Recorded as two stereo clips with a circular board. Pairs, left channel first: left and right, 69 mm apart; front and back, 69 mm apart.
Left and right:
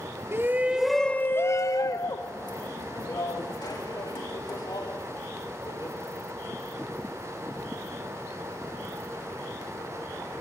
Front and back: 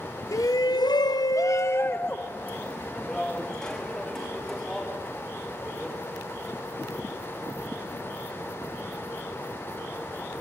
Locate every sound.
0.3 s a shout: 35° right, 0.9 m; by 6.0 s 85° left, 5 m